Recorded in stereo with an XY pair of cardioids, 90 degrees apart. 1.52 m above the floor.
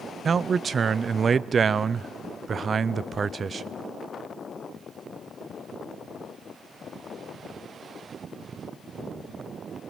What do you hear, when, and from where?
0.2 s a man speaking: 50° right, 0.5 m